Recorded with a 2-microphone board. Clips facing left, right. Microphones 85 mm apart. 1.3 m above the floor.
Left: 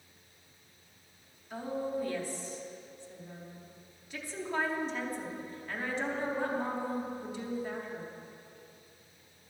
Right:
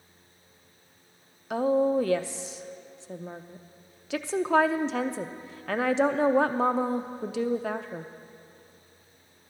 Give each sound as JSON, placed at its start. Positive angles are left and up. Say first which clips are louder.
{"t": 1.5, "sound": "a woman speaking", "louder": "right 12 dB", "side_deg": -75, "distance_m": 0.6}